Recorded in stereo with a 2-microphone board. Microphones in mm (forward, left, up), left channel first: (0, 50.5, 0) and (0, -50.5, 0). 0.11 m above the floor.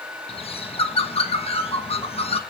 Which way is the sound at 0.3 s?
80° left.